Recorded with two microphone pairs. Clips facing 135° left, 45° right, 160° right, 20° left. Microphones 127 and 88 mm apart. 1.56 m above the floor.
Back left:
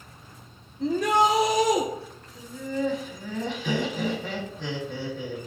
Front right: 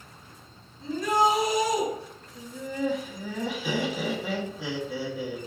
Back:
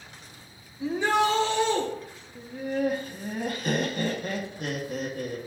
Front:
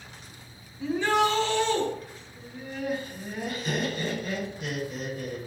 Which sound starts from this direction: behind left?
A shout, at 0.8 s.